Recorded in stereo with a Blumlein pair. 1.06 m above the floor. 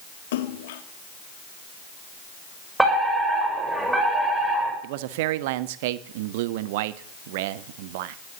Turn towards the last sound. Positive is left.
turn(degrees=-50)